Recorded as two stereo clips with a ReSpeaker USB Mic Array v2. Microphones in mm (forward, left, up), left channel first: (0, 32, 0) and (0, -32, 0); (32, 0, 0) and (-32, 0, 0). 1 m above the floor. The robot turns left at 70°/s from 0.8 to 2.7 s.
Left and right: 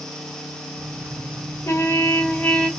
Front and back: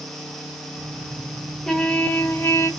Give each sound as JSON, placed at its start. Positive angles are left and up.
{"t": 1.6, "sound": "a trumpet", "azimuth_deg": 90, "distance_m": 1.1}